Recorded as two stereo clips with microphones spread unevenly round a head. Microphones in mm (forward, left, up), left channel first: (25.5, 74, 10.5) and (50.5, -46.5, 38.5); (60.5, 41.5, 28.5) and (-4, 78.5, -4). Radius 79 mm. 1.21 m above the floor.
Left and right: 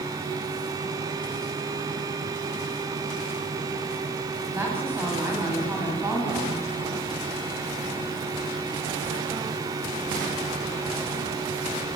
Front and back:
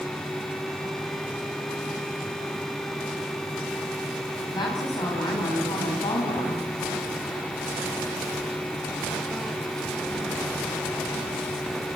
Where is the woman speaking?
5° right, 8 m; by 6.7 s 15° right, 8.5 m.